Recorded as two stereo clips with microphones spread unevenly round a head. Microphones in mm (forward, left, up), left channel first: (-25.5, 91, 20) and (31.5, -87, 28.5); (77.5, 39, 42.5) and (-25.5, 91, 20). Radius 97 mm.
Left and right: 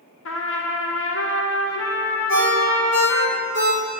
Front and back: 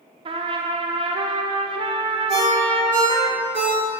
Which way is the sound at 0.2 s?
110° left.